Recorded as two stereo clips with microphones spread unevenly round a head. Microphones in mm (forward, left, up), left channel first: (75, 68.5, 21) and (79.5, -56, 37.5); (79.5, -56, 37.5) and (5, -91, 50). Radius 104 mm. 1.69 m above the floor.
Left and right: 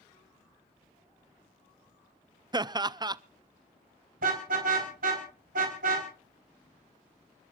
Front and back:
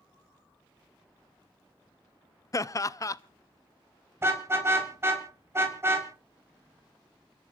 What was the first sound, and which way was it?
Laughter, 25° right.